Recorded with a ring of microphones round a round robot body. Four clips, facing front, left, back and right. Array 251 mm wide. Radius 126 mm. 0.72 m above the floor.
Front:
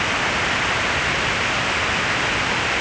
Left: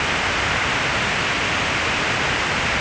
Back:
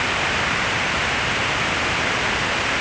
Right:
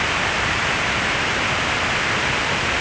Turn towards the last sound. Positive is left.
No sound to turn to.